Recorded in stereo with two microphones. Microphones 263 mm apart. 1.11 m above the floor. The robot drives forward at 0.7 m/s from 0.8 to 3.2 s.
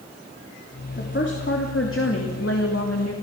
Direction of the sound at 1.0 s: 45° left (ahead or behind).